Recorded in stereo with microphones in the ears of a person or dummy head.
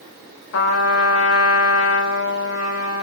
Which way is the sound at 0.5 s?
75° left (ahead or behind).